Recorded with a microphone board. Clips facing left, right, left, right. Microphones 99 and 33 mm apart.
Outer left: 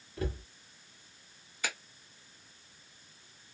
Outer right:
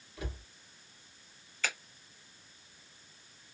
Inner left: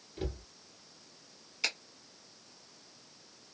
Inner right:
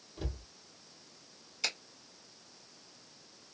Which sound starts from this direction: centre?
A finger snap, at 1.6 s.